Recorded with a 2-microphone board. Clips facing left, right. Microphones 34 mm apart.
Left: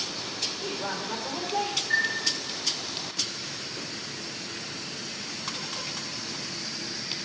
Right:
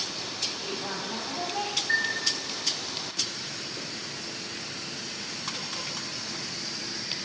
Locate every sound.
0.6 s a woman speaking: 65° left (ahead or behind), 3.5 m
1.9 s a chime: 70° right (ahead or behind), 1.4 m